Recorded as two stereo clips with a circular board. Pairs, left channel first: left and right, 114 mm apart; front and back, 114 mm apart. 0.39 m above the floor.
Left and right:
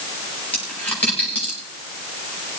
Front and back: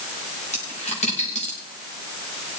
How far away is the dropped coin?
About 7 m.